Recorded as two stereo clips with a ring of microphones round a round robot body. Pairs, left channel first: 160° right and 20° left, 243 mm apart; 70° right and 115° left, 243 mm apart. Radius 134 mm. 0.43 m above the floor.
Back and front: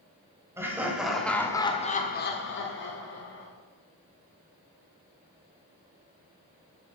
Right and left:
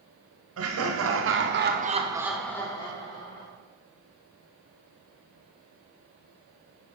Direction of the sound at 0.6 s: 100° left.